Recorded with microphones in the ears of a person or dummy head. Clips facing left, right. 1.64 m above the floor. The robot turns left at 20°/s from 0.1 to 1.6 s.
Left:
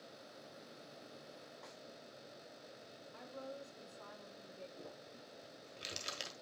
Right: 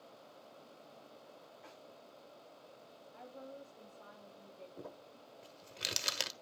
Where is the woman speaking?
65° left (ahead or behind), 5 m.